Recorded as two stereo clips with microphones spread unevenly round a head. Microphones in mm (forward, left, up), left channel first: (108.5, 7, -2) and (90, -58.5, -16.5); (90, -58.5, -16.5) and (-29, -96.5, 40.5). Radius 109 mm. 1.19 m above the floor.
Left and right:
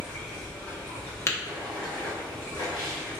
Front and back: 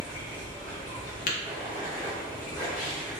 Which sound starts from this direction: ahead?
Tapping, at 1.3 s.